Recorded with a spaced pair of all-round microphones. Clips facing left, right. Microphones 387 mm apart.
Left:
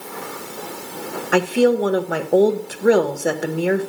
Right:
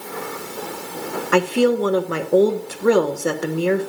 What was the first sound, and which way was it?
A woman speaking, 10° right (ahead or behind).